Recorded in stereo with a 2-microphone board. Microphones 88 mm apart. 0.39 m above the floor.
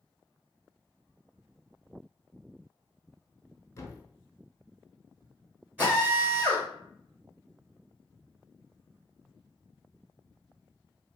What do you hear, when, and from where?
3.8 s a thud: 35° left (ahead or behind), 0.7 m
5.8 s a drill: 20° right (ahead or behind), 1.7 m